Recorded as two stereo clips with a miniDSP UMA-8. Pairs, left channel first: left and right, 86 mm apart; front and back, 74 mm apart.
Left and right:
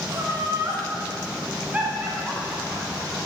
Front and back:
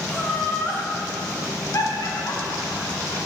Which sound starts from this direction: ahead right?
Laughter, at 0.1 s.